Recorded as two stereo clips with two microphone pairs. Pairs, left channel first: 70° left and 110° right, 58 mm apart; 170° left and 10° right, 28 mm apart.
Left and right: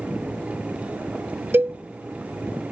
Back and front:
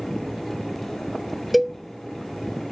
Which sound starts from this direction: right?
A cowbell, at 1.5 s.